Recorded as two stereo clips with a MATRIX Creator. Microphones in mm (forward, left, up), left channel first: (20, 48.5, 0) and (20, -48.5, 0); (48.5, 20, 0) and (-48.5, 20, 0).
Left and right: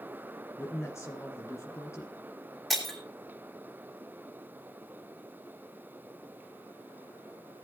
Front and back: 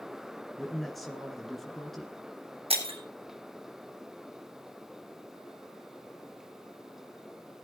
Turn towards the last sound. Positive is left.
turn(degrees=180)